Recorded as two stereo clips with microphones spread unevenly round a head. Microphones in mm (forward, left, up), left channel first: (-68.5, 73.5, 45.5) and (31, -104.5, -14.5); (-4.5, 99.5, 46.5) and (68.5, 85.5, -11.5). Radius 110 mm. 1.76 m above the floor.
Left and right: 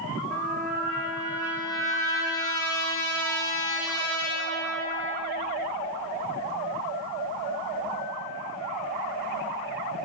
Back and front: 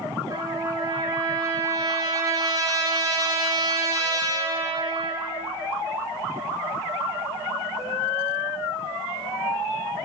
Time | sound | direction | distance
0.3 | a trumpet | 45° left | 4 m